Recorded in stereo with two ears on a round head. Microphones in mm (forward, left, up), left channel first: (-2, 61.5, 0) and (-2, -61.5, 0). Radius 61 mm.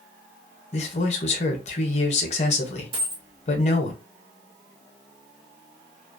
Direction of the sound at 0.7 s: 50° left (ahead or behind).